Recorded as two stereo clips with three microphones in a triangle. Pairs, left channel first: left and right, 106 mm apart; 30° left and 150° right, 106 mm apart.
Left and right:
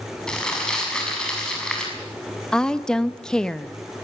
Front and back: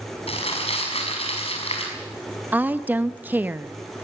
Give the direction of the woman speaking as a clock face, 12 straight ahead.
7 o'clock.